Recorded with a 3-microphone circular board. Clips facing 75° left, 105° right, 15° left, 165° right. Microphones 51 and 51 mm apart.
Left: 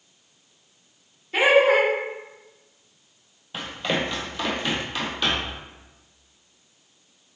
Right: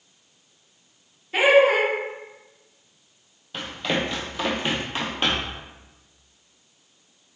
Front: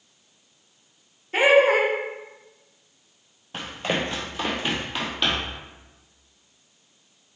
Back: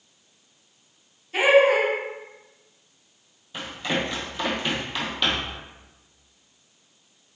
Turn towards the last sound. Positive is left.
turn(degrees=-75)